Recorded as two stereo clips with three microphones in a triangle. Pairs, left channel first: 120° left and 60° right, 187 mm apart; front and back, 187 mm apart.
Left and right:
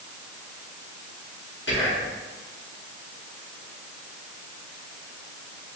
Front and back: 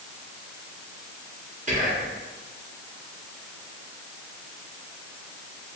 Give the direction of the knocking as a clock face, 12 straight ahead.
No knocking in this recording.